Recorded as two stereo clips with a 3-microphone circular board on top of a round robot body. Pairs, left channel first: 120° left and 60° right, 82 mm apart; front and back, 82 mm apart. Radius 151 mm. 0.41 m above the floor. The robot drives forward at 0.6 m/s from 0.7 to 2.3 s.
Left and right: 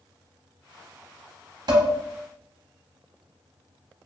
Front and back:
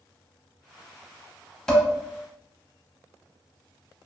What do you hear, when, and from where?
1.7 s dishes clattering: 80° right, 0.8 m; by 1.9 s 90° right, 0.8 m